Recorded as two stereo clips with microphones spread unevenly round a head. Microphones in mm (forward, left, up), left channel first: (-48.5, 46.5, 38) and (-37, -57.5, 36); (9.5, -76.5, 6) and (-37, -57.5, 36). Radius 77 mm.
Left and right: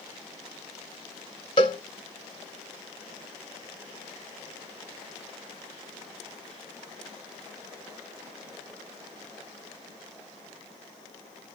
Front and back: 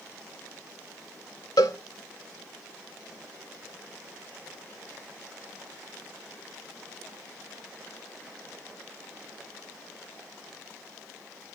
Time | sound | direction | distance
1.6 | a cowbell | 45° left | 0.6 m